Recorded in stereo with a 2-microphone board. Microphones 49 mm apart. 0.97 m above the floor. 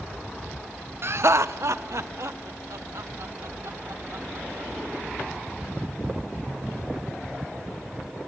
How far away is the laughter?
About 0.5 m.